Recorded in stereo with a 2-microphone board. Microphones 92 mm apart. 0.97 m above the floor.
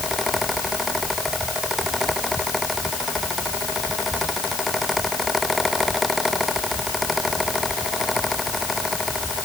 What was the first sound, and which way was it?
Only background noise.